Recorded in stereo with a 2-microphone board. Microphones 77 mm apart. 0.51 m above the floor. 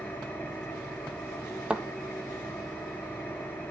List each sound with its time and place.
0.0 s an engine running: 20° left (ahead or behind), 4 m
1.7 s a thud: 10° right (ahead or behind), 1.0 m